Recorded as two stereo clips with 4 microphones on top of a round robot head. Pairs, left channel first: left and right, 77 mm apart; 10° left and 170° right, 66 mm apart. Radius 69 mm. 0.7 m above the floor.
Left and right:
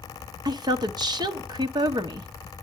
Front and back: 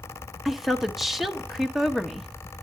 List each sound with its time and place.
0.5 s a woman speaking: 85° right, 1.1 m